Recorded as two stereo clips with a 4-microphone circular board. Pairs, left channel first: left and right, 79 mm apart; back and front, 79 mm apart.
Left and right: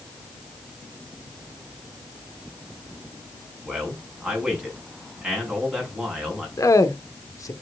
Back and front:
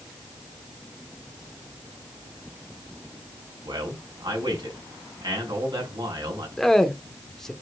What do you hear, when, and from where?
3.6 s a man speaking: 10° right, 5 m
6.6 s a man speaking: 95° left, 1.2 m